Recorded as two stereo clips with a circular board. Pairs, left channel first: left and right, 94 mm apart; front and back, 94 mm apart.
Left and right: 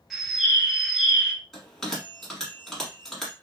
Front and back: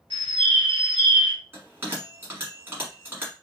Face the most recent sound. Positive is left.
turn(degrees=170)